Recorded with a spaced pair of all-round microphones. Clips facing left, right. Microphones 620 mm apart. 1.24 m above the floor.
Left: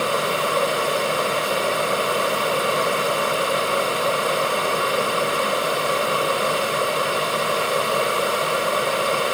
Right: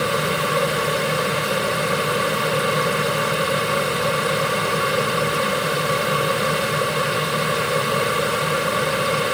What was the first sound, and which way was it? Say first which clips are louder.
A fan: right 1 dB; 45° right (ahead or behind).